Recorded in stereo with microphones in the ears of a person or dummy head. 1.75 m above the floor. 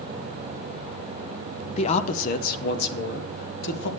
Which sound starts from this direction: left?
A man speaking, at 1.8 s.